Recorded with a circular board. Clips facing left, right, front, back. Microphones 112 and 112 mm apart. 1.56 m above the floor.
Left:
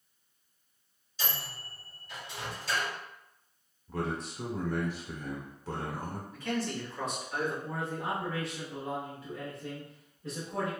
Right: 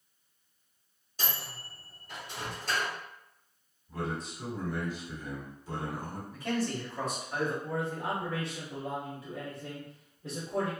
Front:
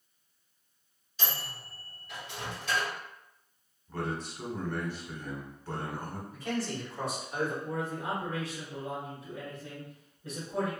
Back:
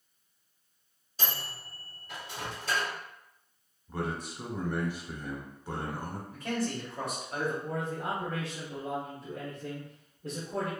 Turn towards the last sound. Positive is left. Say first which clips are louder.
# right 1 dB, even
turn(degrees=-150)